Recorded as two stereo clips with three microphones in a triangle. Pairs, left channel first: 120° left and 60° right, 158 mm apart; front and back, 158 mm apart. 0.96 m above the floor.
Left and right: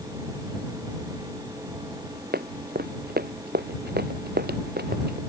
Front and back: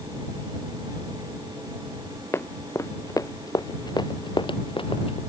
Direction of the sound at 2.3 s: 75° right.